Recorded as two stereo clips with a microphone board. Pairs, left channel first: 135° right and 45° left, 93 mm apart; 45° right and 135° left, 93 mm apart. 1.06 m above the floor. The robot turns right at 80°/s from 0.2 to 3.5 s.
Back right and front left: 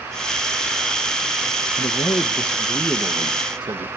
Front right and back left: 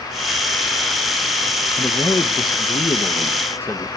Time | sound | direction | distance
1.8 | a man speaking | 125° right | 1.0 m